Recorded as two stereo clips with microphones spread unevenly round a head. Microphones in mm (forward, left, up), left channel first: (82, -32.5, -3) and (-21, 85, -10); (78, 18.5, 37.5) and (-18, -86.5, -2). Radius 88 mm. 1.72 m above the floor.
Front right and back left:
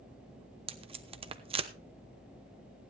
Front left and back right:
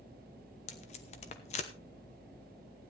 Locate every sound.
0.7 s tape being pulled: 80° left, 0.9 m